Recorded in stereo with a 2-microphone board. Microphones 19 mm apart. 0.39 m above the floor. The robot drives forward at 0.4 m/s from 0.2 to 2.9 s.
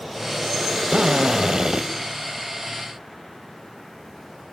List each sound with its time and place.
0.9 s a drill: 55° right (ahead or behind), 2.5 m; by 1.9 s 50° right (ahead or behind), 2.5 m